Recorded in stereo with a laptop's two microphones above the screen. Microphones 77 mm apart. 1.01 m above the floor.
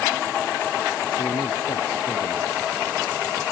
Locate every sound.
1.2 s a man speaking: 80° left